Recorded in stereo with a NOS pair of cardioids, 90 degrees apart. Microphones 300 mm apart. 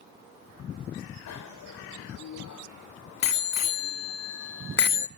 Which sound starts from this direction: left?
A bicycle bell, at 1.3 s.